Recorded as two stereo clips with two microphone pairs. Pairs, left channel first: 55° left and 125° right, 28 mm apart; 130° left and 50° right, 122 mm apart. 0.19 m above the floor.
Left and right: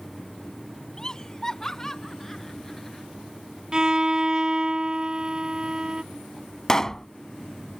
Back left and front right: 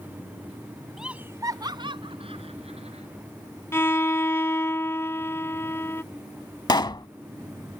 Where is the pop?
120° left.